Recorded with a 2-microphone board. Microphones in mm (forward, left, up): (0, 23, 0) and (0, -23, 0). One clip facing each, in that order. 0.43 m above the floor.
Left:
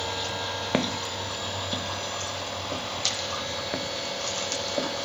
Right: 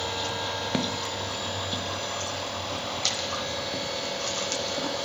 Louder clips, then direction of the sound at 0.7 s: Left 1 dB; 30° left (ahead or behind).